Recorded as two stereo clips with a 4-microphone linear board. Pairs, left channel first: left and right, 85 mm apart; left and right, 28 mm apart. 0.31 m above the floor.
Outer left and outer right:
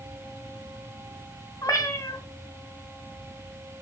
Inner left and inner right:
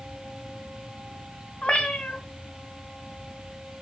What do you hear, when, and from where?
1.6 s a cat meowing: 40° left (ahead or behind), 1.2 m